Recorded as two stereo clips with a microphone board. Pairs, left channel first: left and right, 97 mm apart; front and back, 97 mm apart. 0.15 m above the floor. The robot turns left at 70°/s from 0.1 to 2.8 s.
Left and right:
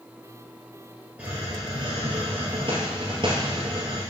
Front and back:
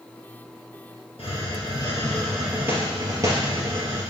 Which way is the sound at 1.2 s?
10° right.